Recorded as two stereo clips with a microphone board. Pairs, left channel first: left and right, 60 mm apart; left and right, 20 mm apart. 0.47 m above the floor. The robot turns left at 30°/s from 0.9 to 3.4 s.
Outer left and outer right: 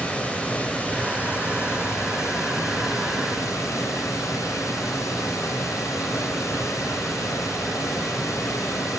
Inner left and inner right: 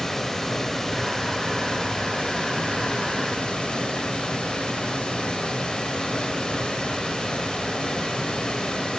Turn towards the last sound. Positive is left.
turn(degrees=80)